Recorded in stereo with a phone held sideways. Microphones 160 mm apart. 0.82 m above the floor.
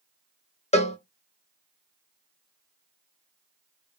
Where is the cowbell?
45° left (ahead or behind), 0.6 m.